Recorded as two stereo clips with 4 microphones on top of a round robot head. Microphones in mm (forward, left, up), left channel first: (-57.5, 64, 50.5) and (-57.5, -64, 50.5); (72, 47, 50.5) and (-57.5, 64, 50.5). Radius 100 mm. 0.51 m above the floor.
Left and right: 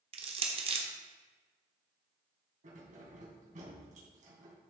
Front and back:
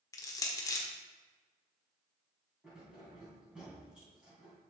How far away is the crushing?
About 1.3 m.